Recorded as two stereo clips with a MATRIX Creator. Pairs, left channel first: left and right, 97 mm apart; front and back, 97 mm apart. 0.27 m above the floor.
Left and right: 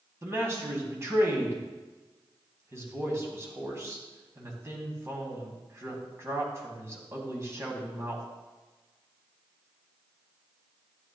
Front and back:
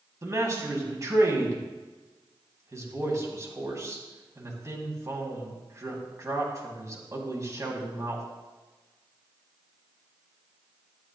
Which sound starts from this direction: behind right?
A man speaking, at 0.2 s.